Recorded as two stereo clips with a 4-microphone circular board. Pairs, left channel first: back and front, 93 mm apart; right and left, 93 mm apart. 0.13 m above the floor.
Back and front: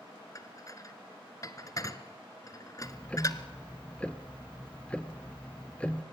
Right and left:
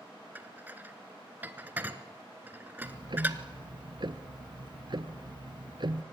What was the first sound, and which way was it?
Dishes clattering, 150° left.